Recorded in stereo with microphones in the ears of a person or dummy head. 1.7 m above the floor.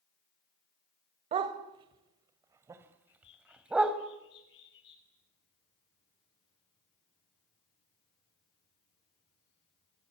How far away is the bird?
About 9.5 m.